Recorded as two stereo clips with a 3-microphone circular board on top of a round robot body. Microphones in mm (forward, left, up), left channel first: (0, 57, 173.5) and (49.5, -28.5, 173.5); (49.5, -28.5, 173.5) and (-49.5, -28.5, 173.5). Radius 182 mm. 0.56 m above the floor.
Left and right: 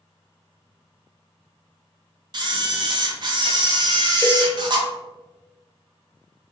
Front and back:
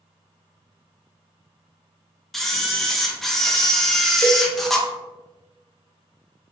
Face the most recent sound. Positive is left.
turn(degrees=50)